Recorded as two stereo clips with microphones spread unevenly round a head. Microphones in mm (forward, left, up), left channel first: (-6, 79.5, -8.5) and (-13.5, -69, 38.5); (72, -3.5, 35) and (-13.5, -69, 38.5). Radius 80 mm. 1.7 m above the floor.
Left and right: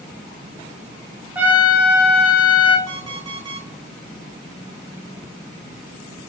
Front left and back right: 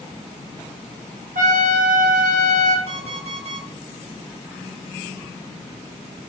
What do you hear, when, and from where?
1.4 s a trumpet: 165° right, 1.8 m
2.9 s an alarm clock: 135° right, 3 m